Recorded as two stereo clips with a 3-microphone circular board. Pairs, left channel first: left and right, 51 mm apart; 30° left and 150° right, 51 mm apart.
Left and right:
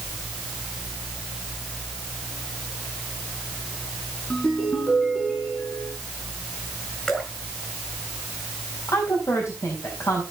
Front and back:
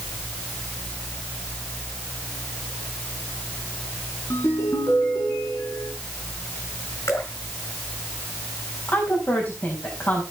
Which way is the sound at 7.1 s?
15° left.